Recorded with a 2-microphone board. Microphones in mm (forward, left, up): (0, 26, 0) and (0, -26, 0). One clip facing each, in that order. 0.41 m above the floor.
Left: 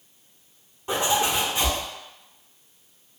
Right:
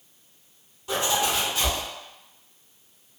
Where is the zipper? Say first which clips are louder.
Left 2 dB; 30° left (ahead or behind), 1.1 m.